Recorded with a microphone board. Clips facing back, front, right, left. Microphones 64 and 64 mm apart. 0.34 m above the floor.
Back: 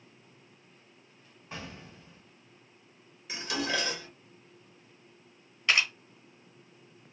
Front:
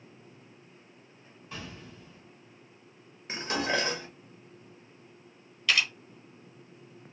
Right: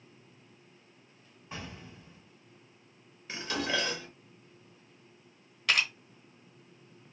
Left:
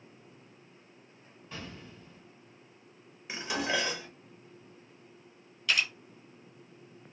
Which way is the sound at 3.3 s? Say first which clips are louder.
Front 3 dB, left 1 dB; 25° left.